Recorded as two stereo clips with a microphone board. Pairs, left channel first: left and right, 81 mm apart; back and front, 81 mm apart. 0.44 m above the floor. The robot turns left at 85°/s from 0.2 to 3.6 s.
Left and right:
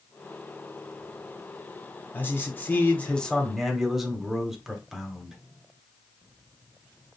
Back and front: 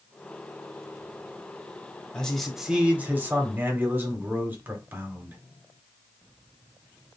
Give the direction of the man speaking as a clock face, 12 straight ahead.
8 o'clock.